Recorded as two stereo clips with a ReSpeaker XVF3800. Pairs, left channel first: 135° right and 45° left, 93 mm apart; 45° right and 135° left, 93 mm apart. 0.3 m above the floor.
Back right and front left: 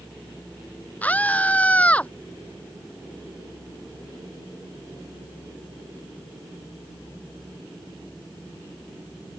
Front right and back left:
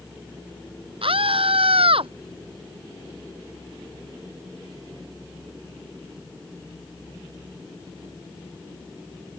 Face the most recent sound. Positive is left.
turn(degrees=150)